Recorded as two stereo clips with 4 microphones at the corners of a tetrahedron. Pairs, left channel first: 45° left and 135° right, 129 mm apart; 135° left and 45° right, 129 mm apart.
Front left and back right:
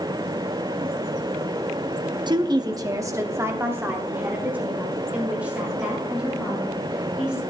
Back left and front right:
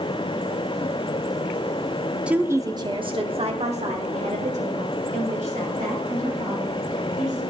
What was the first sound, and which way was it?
A woman speaking, 120° right.